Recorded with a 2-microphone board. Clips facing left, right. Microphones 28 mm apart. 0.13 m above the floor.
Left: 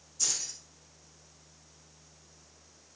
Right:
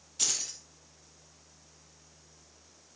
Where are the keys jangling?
65° right (ahead or behind), 3 m.